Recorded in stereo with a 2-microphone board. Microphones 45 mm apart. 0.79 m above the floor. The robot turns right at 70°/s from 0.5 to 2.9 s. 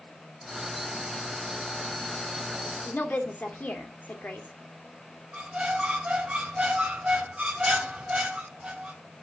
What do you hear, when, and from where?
2.9 s a woman speaking: 40° left (ahead or behind), 2.5 m; by 4.5 s 45° left (ahead or behind), 2.5 m
5.3 s a squeak: 25° right (ahead or behind), 2.0 m